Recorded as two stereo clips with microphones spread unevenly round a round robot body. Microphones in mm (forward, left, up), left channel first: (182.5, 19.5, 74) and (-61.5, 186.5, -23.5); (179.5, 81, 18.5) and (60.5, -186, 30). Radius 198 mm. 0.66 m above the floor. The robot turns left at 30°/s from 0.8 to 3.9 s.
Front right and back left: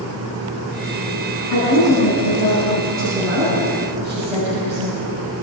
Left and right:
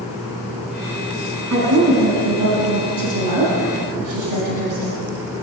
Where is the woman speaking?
85° right, 6.5 m; by 5.0 s 155° right, 6.5 m.